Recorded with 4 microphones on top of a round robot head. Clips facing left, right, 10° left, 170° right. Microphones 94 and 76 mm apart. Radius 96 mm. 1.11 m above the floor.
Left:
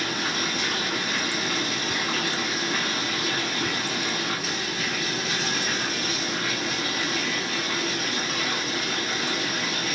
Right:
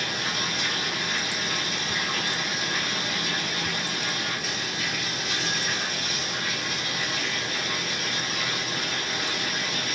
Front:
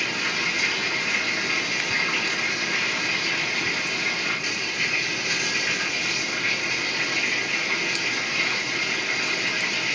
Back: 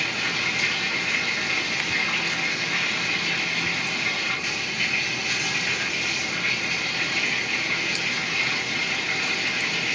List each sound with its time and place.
0.0 s running water: 95° left, 1.3 m